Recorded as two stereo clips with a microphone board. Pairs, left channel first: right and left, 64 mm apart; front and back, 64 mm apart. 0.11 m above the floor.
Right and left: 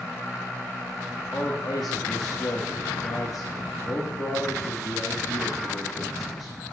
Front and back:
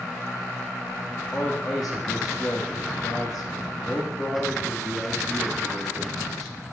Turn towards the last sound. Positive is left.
turn(degrees=-85)